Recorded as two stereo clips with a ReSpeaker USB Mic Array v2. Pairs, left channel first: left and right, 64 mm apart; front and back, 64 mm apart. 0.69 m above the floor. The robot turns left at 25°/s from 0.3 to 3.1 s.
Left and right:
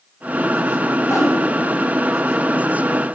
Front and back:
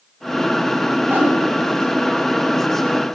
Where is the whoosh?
125° left, 3 m; by 1.4 s 120° left, 3 m.